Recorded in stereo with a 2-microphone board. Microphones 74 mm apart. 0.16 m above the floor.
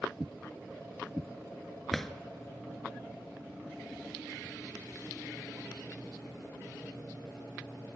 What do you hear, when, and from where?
1.9 s a drawer: 5° left (ahead or behind), 0.7 m